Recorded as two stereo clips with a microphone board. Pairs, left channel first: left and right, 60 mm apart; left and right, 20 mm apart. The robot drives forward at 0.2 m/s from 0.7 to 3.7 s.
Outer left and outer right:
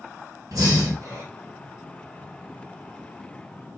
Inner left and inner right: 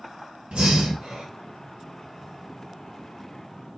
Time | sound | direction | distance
0.5 | breathing | 85° right | 1.3 m